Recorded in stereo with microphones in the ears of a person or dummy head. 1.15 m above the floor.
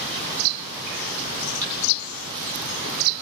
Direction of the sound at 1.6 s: 10° left (ahead or behind).